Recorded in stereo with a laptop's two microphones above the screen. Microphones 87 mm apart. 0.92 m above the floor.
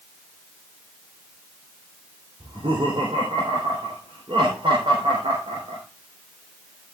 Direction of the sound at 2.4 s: 75° right (ahead or behind).